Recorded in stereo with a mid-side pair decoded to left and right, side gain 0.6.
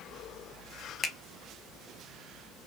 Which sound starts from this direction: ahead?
A finger snap, at 1.0 s.